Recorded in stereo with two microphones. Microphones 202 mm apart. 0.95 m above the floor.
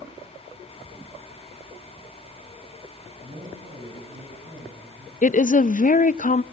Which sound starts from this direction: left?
A woman speaking, at 5.2 s.